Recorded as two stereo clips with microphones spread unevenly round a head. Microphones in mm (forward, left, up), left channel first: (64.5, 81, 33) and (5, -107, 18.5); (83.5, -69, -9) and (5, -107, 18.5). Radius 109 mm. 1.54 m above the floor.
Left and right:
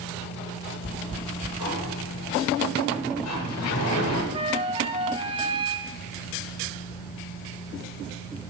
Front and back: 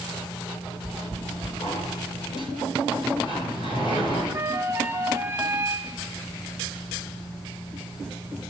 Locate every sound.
1.6 s a sliding door: 95° left, 8.5 m
4.3 s a flute: 170° right, 1.3 m